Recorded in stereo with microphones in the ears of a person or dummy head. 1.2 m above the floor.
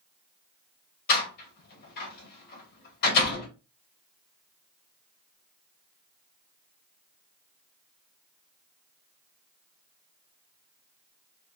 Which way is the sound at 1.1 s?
55° left (ahead or behind).